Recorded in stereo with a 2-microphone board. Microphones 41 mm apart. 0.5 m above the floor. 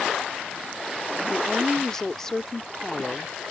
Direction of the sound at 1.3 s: 10° left (ahead or behind).